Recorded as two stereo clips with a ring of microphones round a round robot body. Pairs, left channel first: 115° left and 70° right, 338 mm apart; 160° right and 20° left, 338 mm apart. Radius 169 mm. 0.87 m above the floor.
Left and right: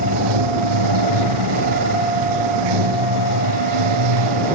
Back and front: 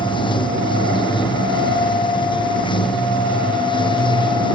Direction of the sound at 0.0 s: 80° right.